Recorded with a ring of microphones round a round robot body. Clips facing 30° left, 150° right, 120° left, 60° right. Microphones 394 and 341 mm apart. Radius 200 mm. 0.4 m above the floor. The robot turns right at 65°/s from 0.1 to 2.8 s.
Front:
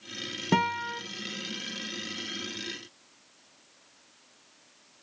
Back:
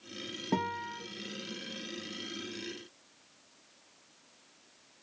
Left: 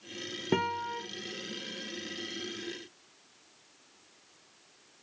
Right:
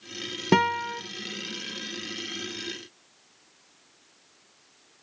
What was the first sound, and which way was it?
A guitar, 25° right.